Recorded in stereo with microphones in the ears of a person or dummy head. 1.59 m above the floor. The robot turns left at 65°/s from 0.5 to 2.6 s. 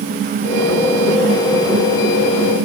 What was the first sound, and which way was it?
Only background noise.